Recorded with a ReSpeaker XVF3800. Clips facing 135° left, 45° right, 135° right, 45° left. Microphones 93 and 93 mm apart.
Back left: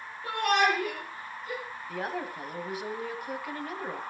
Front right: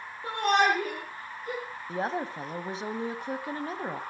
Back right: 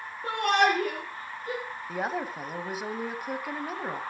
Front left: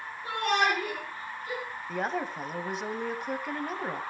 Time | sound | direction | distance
0.2 | a shout | 105° right | 5 m
1.9 | a woman speaking | 55° right | 1.2 m